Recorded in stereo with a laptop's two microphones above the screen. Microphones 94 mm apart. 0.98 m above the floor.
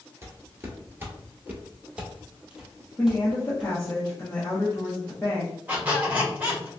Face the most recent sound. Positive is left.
turn(degrees=-20)  # may be behind; listen again after turning